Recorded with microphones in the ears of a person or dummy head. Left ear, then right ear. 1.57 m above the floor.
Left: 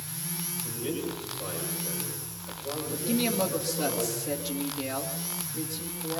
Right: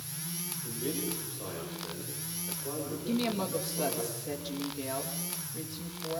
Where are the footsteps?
No footsteps in this recording.